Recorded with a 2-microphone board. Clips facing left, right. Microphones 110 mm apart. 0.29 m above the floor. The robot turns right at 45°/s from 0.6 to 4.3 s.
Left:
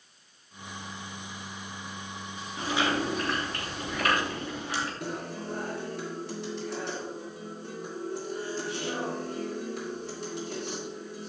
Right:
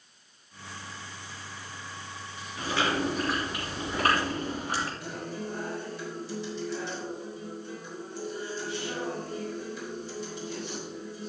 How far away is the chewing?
About 4 m.